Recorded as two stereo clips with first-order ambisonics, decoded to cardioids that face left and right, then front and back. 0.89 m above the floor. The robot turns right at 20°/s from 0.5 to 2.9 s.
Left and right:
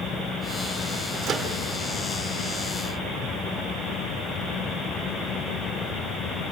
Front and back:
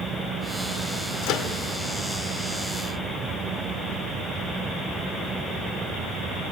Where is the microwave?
30° right, 2.5 m; by 1.5 s 25° right, 2.5 m.